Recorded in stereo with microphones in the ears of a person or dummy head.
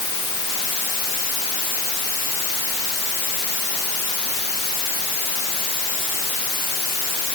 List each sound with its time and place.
Only background noise.